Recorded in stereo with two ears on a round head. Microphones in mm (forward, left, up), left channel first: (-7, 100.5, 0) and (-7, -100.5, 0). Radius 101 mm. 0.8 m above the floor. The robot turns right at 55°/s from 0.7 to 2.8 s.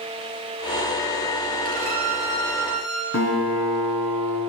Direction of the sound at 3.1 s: 55° left (ahead or behind).